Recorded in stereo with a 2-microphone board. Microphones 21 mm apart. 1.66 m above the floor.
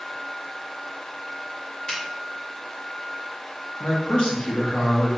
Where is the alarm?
No alarm in this recording.